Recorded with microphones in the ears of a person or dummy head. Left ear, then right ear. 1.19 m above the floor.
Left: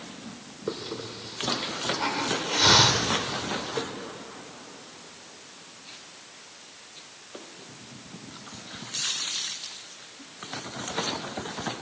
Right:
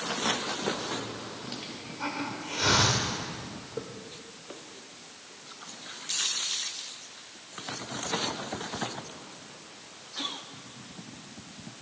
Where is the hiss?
20° left (ahead or behind), 1.4 m.